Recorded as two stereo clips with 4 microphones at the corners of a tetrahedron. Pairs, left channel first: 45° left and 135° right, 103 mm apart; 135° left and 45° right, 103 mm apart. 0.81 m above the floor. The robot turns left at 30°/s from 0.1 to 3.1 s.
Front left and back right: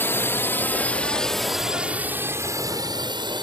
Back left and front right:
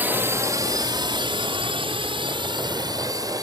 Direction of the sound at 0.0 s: 5° left.